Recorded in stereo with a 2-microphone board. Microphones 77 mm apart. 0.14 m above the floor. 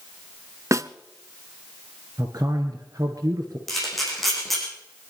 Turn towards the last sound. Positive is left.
turn(degrees=0)  # may be behind; listen again after turning